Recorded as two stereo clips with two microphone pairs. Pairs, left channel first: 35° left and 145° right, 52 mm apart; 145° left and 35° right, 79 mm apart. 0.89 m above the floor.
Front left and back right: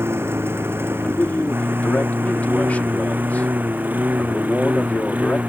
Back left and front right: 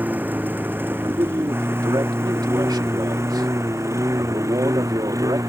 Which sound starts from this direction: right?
A lawn mower, at 0.0 s.